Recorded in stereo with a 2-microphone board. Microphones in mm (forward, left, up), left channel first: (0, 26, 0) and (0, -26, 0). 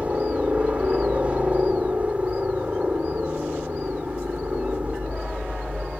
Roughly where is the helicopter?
Right.